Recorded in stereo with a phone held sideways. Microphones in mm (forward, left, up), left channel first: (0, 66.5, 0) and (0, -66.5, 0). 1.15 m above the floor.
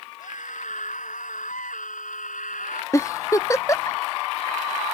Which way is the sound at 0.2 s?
70° left (ahead or behind).